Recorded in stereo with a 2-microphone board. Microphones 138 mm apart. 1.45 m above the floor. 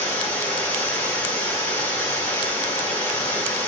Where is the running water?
20° left (ahead or behind), 1.6 m.